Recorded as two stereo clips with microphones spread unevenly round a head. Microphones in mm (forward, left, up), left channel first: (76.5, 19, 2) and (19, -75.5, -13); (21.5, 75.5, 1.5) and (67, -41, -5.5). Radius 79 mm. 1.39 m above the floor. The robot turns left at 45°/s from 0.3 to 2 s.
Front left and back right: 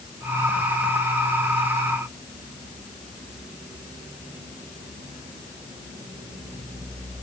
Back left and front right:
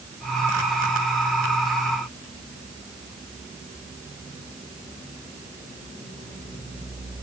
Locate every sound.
Only background noise.